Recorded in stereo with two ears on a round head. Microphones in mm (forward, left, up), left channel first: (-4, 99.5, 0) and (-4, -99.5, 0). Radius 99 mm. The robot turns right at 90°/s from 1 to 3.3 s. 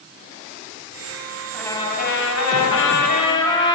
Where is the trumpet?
Straight ahead, 5.5 m; by 3.8 s 155° left, 5.5 m.